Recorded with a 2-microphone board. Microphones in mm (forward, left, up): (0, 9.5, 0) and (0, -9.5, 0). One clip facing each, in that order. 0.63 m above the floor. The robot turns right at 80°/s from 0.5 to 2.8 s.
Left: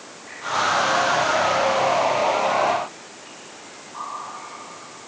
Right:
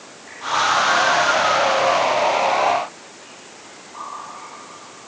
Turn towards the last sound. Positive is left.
No sound to turn to.